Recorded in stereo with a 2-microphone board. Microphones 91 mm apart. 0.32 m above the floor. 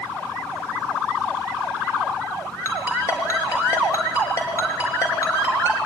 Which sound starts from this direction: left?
A ringtone, at 2.6 s.